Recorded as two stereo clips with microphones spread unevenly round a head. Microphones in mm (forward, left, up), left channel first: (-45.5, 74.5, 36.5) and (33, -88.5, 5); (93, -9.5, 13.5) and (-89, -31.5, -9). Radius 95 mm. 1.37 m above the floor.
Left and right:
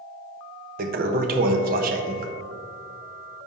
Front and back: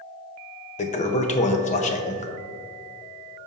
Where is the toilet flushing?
20° right, 0.7 m.